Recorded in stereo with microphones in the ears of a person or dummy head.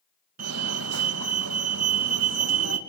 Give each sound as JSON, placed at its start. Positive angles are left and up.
{"t": 0.4, "sound": "a fire alarm", "side_deg": -70, "distance_m": 2.5}